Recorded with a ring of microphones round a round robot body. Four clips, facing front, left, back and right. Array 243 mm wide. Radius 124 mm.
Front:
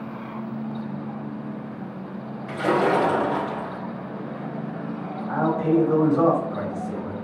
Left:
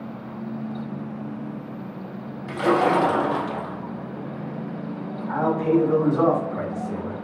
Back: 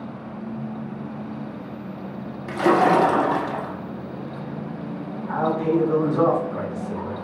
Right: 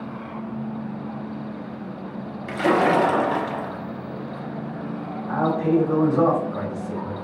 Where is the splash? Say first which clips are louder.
Right 1 dB, back 4 dB; 160° right, 0.6 m.